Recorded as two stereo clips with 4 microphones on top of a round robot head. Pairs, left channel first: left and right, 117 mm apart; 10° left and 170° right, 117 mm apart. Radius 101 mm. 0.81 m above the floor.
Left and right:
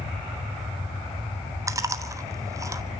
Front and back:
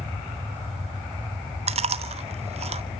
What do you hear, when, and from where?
1.7 s chewing: 150° right, 1.2 m